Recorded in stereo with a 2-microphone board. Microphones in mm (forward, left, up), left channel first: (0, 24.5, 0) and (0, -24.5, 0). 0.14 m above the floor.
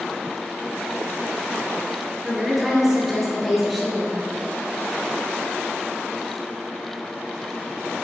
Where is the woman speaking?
Centre (ahead or behind), 2.5 m.